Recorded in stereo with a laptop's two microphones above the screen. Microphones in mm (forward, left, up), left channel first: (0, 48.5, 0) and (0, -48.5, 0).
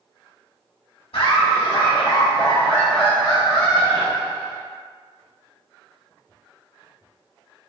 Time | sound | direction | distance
1.1 | laughter | 75° left (ahead or behind) | 0.9 m